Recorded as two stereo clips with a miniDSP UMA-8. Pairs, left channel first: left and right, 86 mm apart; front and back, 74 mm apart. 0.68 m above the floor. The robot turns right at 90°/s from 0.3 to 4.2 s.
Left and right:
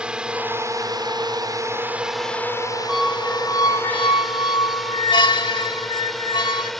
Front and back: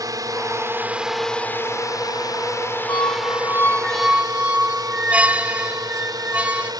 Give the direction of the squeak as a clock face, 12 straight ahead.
12 o'clock.